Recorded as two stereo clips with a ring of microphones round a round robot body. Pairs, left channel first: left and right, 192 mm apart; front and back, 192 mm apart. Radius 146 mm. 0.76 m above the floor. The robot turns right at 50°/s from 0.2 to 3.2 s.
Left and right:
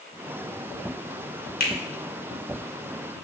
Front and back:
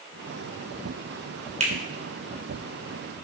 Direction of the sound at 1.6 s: 125° left.